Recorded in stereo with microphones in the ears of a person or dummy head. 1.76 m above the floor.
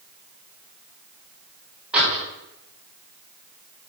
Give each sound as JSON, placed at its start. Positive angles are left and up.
{"t": 1.9, "sound": "a door slam", "side_deg": -5, "distance_m": 5.0}